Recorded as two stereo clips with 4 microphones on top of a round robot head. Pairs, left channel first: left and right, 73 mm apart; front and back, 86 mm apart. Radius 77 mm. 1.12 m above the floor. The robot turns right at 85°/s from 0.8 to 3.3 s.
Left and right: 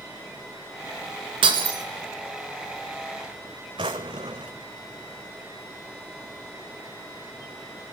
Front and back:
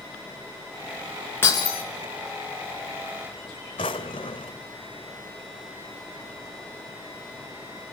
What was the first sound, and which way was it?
Breaking glass, 70° right.